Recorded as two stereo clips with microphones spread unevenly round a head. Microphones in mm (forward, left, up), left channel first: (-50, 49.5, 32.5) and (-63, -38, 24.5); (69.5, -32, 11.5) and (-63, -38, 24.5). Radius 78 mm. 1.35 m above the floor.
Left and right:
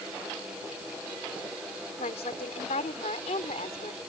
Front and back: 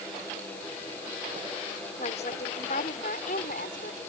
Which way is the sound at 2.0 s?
55° left.